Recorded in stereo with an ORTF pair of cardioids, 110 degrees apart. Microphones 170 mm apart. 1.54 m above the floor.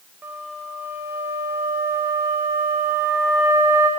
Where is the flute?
15° right, 0.9 m.